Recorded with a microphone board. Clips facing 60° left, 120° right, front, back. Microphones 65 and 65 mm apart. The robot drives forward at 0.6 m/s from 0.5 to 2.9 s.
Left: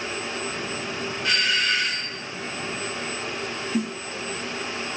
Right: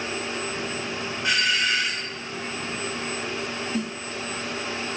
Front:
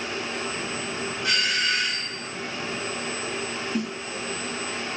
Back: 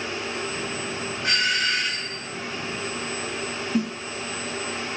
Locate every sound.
1.2 s a doorbell: 165° left, 1.9 m; by 2.2 s 170° left, 2.5 m
3.7 s a snare drum: 130° left, 1.4 m